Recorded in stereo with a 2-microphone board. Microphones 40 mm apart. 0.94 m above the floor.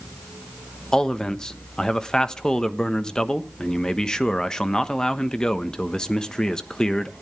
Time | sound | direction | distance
0.9 | a man speaking | 20° left (ahead or behind) | 1.0 m